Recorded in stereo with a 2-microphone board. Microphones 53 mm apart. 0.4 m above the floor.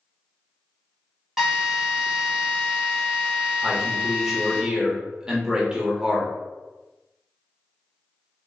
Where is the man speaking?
15° right (ahead or behind), 1.0 m.